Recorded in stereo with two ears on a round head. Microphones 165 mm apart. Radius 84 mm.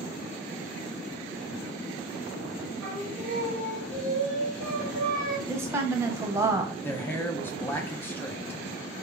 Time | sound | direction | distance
2.8 | singing | 5° left (ahead or behind) | 1.9 m
5.5 | a woman speaking | 15° right (ahead or behind) | 0.8 m
6.8 | a man speaking | 10° left (ahead or behind) | 0.8 m